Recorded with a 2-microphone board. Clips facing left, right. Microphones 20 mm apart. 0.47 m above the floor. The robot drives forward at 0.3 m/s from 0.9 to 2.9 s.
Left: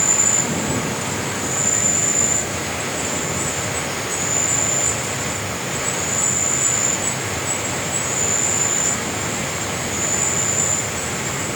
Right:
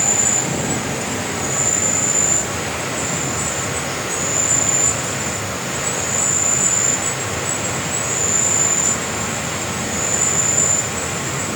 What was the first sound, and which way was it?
An insect, 45° right (ahead or behind).